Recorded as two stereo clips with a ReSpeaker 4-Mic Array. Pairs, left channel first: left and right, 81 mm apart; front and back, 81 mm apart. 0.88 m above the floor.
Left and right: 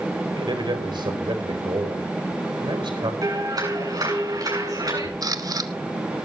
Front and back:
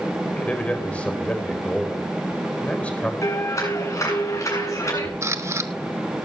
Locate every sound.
0.3 s a man speaking: 75° right, 4 m
3.2 s a clap: 50° right, 8.5 m
5.2 s a camera shutter: 125° right, 1.2 m